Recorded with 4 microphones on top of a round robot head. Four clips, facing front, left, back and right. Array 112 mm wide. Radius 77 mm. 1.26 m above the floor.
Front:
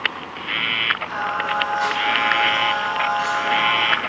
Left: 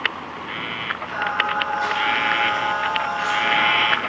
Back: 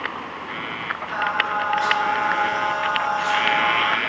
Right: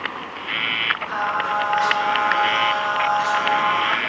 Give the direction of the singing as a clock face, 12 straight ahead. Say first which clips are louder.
Even, back 3 dB; 2 o'clock.